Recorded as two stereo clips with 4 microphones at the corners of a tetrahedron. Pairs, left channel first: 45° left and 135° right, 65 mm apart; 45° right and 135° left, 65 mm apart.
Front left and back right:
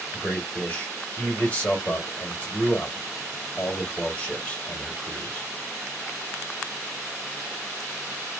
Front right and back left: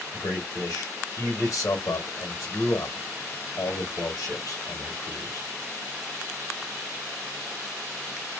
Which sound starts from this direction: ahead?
A man speaking, at 0.1 s.